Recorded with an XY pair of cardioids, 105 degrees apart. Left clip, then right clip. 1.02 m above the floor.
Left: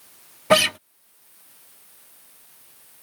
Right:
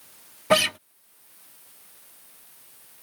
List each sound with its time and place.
0.5 s a guitar: 20° left